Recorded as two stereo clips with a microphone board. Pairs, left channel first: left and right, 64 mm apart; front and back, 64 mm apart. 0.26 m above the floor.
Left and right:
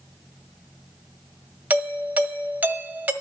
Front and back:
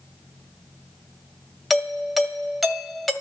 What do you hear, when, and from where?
1.7 s a doorbell: 95° right, 1.4 m